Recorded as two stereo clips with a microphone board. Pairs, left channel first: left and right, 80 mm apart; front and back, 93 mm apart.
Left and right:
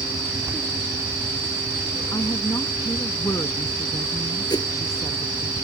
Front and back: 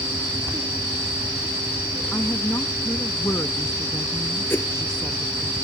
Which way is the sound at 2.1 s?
55° left.